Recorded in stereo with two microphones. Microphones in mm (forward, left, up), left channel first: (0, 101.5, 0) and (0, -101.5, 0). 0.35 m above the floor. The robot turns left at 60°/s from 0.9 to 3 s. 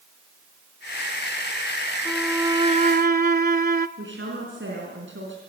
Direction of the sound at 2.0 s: 5° left.